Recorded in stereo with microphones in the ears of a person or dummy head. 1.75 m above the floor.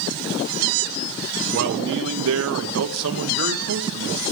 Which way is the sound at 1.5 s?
55° right (ahead or behind).